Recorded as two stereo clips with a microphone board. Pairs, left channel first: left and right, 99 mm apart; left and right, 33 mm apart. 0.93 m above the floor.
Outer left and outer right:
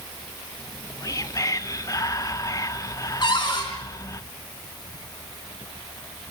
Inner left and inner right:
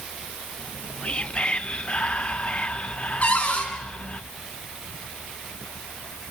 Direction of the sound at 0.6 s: 35° left (ahead or behind).